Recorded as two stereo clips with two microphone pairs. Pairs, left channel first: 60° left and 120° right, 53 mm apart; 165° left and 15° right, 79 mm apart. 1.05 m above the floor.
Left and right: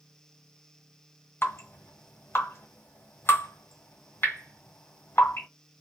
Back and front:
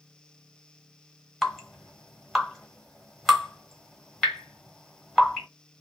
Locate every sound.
1.4 s dripping: 80° left, 1.1 m